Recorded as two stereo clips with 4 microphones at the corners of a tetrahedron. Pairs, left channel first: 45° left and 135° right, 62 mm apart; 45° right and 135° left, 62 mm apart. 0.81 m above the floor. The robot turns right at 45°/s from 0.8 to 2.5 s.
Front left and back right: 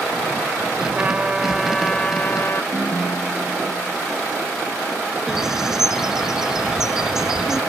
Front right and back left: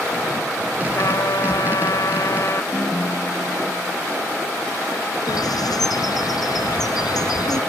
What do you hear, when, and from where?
0.9 s a trumpet: 75° right; by 2.6 s 5° right
2.7 s a ringtone: 5° right
5.3 s a bird: 55° right